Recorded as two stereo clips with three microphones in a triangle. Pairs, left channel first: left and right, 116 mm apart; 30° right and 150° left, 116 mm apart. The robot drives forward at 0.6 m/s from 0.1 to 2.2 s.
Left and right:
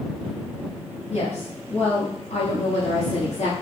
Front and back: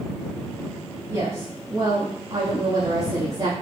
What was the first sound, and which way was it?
A woman speaking, 100° left.